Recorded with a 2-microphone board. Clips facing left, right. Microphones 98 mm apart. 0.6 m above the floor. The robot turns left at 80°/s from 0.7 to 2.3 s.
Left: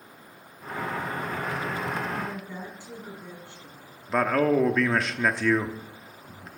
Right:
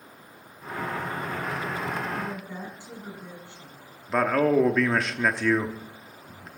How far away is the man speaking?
About 0.7 m.